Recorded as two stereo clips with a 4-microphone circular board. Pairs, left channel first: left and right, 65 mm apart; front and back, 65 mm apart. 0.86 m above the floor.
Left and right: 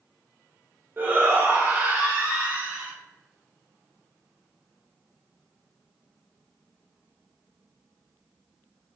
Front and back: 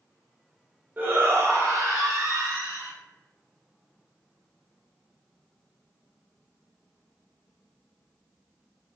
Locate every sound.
1.0 s a shout: 130° right, 0.6 m; by 2.9 s 160° right, 1.5 m